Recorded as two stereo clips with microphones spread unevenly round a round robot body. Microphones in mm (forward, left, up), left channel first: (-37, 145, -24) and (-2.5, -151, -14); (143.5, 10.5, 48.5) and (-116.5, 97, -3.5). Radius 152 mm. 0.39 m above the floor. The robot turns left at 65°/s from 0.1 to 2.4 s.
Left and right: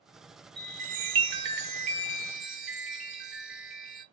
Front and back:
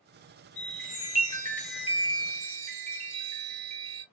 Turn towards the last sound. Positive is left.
turn(degrees=-170)